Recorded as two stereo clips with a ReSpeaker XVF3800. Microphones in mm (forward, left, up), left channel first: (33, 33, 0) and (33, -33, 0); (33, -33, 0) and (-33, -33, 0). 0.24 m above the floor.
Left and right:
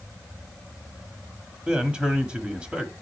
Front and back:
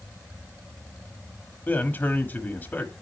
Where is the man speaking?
25° right, 1.5 m.